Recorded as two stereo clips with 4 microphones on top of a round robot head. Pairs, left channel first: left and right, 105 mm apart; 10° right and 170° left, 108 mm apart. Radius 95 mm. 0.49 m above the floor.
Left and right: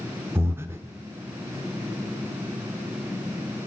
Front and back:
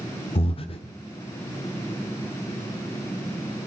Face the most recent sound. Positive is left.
turn(degrees=-25)